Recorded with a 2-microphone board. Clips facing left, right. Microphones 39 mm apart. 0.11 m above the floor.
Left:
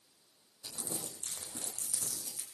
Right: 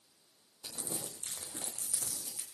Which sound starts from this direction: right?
Crumpling, at 0.6 s.